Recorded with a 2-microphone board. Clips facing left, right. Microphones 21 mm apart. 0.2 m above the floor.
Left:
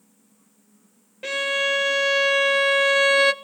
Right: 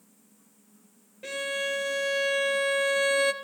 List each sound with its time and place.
1.2 s a violin: 35° left (ahead or behind), 0.6 m